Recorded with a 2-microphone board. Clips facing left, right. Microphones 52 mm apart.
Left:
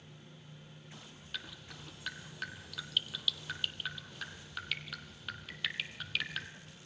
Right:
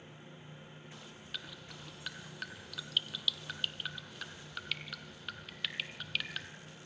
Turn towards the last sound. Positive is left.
turn(degrees=0)  # may be behind; listen again after turning